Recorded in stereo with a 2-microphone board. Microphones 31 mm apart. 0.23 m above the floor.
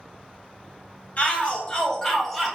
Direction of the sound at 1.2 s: 40° left (ahead or behind).